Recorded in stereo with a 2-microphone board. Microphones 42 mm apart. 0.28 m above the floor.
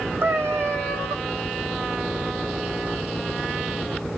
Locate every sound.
0.2 s a cat meowing: 75° right (ahead or behind), 2.5 m